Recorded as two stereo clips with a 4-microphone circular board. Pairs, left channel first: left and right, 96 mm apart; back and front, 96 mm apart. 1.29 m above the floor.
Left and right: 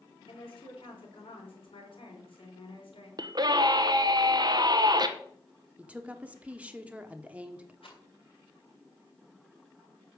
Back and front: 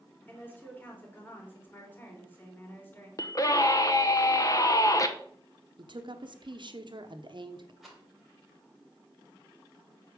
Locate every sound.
0.3 s a woman speaking: 110° left, 3 m
3.2 s a scream: 130° right, 0.7 m
5.8 s a woman speaking: 15° right, 0.9 m
7.8 s a rattle: 85° left, 3 m